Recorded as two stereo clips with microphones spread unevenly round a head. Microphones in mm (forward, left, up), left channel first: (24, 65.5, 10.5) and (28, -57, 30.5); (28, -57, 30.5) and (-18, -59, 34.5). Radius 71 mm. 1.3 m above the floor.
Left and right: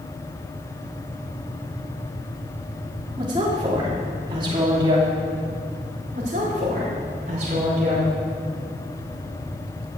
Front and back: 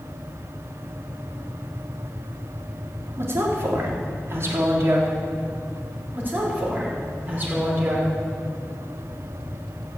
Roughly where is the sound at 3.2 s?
Behind right.